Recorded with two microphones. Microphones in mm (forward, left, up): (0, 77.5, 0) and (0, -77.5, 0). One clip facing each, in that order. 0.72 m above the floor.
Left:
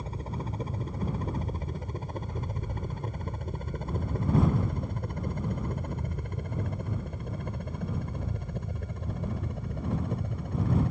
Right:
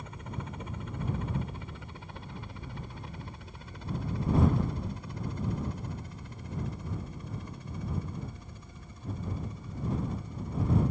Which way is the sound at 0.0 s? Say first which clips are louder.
Left 4 dB; 35° left (ahead or behind).